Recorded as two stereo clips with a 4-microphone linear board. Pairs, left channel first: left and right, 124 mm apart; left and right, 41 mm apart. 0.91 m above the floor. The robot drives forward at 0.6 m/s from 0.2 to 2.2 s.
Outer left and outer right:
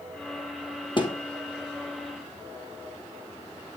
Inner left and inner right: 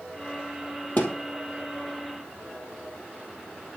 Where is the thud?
40° left (ahead or behind), 2.5 m; by 1.1 s 35° left (ahead or behind), 2.5 m.